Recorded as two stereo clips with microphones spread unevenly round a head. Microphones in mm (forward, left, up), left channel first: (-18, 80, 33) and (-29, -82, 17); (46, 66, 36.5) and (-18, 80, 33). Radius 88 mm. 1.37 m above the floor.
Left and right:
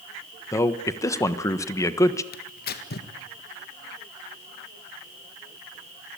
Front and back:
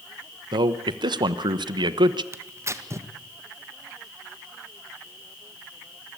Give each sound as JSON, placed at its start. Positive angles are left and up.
{"t": 0.5, "sound": "a man speaking", "azimuth_deg": 160, "distance_m": 1.2}
{"t": 2.3, "sound": "tearing paper", "azimuth_deg": 120, "distance_m": 1.9}